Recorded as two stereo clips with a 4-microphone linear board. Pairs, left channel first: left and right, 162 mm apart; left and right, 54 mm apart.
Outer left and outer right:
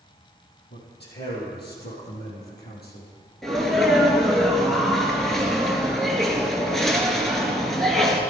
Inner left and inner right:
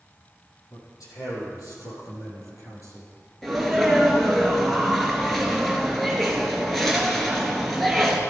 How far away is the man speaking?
About 5 m.